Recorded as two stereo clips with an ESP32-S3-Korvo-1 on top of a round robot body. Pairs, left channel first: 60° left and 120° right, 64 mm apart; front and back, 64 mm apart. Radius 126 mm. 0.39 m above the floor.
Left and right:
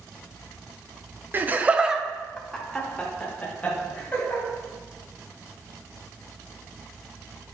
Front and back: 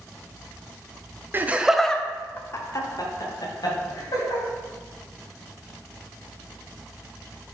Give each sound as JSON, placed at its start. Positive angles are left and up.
{"t": 1.3, "sound": "laughter", "azimuth_deg": -150, "distance_m": 1.0}